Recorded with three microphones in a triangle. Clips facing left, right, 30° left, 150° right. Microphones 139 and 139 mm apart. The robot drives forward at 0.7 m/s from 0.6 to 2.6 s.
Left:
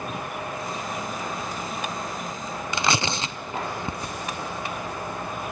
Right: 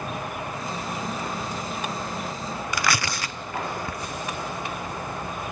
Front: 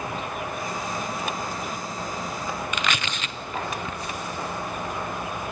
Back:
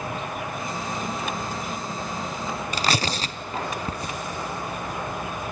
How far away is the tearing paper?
About 0.8 m.